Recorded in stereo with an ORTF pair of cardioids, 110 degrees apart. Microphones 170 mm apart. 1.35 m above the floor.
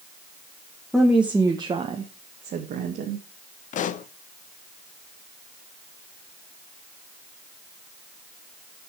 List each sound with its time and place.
0.9 s a woman speaking: 5° left, 1.4 m; by 3.2 s 70° right, 2 m
3.7 s a pop: 50° left, 0.8 m